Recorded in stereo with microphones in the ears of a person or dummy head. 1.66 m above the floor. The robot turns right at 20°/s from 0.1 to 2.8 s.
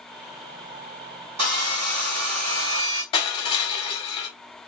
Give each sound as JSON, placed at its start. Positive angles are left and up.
{"t": 1.4, "sound": "sawing", "side_deg": -40, "distance_m": 2.0}
{"t": 3.1, "sound": "crushing", "side_deg": 30, "distance_m": 0.9}